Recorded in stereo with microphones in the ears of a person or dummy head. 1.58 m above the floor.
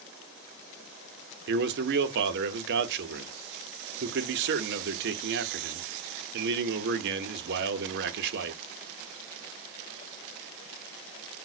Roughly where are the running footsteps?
No running footsteps in this recording.